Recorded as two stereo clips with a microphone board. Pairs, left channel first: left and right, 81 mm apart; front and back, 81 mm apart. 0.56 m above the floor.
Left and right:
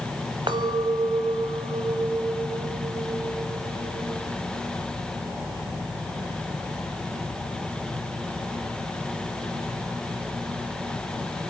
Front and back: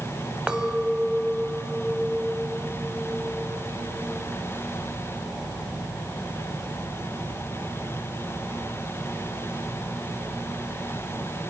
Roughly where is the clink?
Right.